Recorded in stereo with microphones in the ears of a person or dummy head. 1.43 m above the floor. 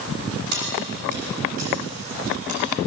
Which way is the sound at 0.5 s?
45° right (ahead or behind).